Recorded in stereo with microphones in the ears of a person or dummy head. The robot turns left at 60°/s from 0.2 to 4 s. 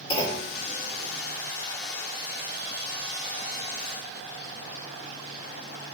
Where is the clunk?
30° left (ahead or behind), 3 m; by 0.5 s 15° left (ahead or behind), 3 m.